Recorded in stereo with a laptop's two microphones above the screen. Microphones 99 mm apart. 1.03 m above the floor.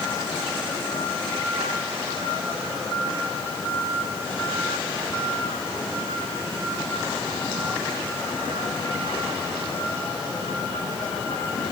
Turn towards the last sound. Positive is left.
No sound to turn to.